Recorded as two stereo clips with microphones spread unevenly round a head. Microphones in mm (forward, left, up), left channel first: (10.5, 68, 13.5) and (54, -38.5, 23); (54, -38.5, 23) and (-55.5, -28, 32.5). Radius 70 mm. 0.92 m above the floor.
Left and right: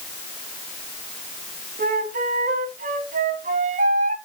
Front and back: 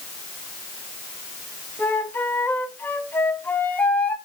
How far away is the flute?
About 1.3 m.